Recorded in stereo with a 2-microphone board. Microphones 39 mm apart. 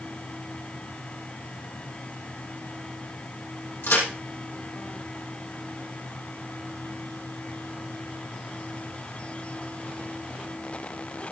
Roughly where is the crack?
Left.